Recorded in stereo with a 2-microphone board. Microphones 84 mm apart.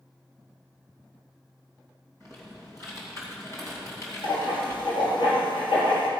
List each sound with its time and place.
2.2 s typing on a keyboard: 35° left (ahead or behind), 3 m
4.2 s writing: 60° left (ahead or behind), 3.5 m